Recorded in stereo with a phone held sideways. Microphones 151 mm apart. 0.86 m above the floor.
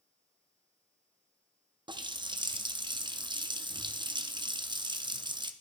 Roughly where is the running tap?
Right.